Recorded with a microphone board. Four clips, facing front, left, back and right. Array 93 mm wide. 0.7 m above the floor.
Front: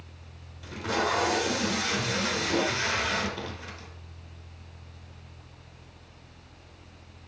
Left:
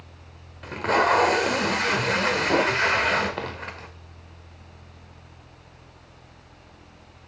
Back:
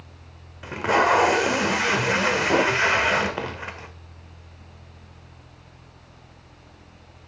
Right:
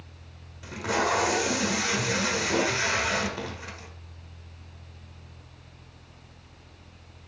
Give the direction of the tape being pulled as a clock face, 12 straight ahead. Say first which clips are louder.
Left 6 dB, back 9 dB; 7 o'clock.